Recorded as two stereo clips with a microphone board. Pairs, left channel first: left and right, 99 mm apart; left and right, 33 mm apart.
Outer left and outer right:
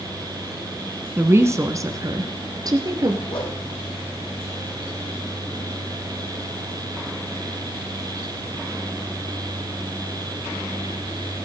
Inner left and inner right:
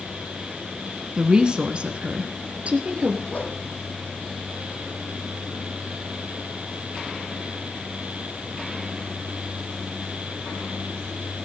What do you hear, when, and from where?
1.2 s a woman speaking: 20° right (ahead or behind), 1.5 m; by 3.2 s 40° right (ahead or behind), 3 m
3.3 s a whoosh: 55° left (ahead or behind), 4.5 m